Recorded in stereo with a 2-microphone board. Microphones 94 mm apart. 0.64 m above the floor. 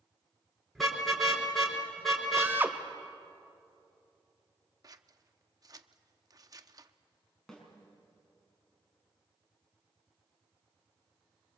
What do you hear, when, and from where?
0.8 s a car horn: centre (ahead or behind), 4 m
2.4 s a drill: 20° right (ahead or behind), 1.1 m
4.8 s scissors: 40° right (ahead or behind), 0.7 m
7.5 s a snare drum: 5° left (ahead or behind), 5.5 m